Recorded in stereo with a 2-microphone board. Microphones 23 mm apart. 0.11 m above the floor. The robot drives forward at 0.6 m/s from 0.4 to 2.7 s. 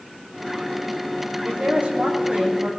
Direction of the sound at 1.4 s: 75° right (ahead or behind).